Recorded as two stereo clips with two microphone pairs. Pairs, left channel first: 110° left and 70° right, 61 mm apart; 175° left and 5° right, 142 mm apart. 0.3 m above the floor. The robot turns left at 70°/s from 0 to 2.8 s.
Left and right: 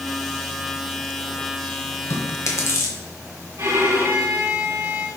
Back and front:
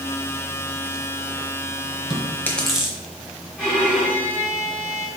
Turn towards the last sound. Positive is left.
turn(degrees=-105)